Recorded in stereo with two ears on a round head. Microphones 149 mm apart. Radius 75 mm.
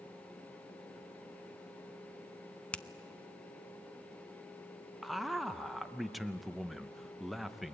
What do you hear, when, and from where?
2.7 s a finger snap: 5° left (ahead or behind), 0.5 m
5.0 s a man speaking: centre (ahead or behind), 0.6 m